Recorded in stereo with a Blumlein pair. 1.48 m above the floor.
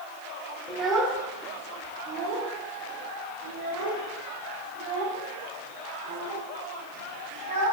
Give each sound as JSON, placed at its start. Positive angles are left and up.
{"t": 0.7, "sound": "a child speaking", "azimuth_deg": -10, "distance_m": 2.5}